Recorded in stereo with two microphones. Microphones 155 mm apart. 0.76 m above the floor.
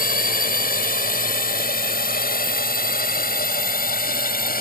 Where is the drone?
70° left (ahead or behind); by 4.6 s 75° left (ahead or behind).